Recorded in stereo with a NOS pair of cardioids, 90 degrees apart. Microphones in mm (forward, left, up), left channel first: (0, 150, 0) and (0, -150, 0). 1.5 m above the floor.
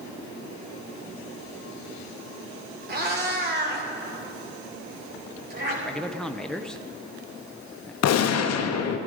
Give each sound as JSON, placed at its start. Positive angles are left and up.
{"t": 2.9, "sound": "a cat meowing", "azimuth_deg": -35, "distance_m": 2.5}
{"t": 5.8, "sound": "a man speaking", "azimuth_deg": 0, "distance_m": 0.7}
{"t": 8.0, "sound": "a gunshot", "azimuth_deg": 60, "distance_m": 1.0}